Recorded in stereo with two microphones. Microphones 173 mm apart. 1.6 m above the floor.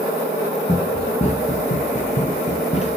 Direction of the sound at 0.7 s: 30° left (ahead or behind).